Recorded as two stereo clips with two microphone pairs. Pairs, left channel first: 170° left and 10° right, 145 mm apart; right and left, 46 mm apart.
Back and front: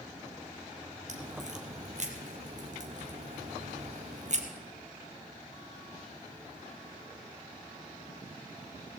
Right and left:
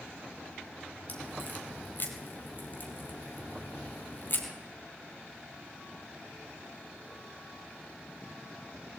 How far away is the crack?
About 3.5 m.